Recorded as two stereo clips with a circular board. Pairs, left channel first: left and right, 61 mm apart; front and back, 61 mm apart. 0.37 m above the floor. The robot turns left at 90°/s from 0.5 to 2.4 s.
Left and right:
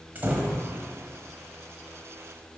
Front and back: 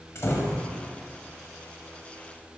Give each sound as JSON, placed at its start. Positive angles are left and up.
{"t": 0.1, "sound": "a door slam", "azimuth_deg": -35, "distance_m": 1.3}